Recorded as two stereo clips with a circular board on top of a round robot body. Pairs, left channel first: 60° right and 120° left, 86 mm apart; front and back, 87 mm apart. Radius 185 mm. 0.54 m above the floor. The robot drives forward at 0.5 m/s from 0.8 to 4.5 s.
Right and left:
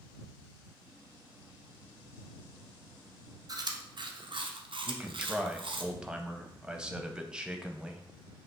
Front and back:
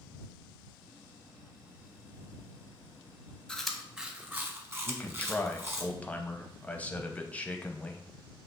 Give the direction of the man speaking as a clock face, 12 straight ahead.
10 o'clock.